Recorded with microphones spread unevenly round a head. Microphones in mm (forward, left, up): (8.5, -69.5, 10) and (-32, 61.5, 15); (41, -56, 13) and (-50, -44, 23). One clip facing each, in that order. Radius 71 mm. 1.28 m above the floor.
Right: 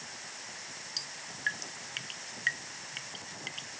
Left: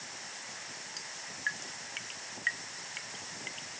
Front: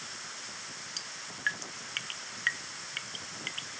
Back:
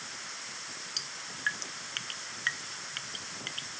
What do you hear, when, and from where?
1.0 s dripping: 120° right